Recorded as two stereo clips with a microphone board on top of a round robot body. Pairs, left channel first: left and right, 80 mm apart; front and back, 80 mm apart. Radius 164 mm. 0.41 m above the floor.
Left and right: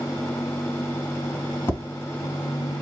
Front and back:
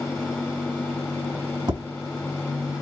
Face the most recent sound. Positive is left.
turn(degrees=150)